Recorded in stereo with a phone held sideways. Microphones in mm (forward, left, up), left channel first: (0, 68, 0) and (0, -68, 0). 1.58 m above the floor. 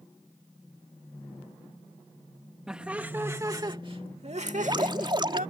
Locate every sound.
2.7 s laughter: 5° right (ahead or behind); by 5.5 s 85° right
4.5 s dripping: 35° right (ahead or behind)